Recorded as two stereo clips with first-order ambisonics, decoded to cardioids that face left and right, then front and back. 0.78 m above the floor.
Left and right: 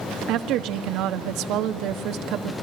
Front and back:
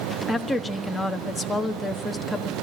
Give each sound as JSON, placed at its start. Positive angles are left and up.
{"t": 0.3, "sound": "a woman speaking", "azimuth_deg": -85, "distance_m": 1.4}